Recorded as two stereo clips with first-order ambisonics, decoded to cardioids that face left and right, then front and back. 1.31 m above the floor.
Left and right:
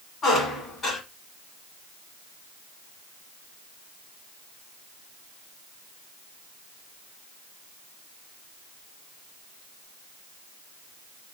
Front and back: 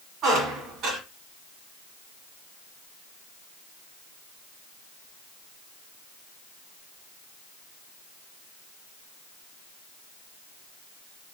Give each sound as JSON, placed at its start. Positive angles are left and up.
{"t": 0.2, "sound": "a squeak", "azimuth_deg": 155, "distance_m": 1.6}